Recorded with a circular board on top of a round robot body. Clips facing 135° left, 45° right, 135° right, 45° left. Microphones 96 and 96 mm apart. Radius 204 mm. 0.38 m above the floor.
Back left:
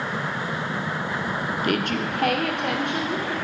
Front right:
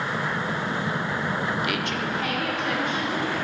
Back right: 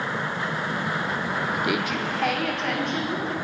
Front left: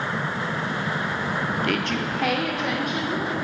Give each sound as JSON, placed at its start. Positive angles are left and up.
{"t": 1.6, "sound": "a woman speaking", "azimuth_deg": 155, "distance_m": 1.0}